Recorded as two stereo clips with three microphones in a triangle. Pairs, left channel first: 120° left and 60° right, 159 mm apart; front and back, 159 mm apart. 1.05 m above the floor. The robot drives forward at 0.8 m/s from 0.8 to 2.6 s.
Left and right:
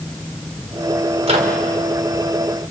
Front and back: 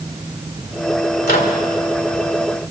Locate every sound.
1.2 s a microwave: 10° right, 3 m